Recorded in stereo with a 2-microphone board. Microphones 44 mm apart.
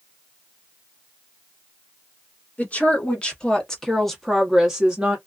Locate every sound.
2.6 s a woman speaking: 35° left (ahead or behind), 1.5 m; by 5.2 s 25° right (ahead or behind), 1.0 m